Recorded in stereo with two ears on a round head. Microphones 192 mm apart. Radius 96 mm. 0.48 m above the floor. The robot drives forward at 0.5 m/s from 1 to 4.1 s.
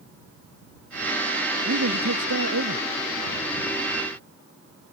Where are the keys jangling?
I don't hear keys jangling.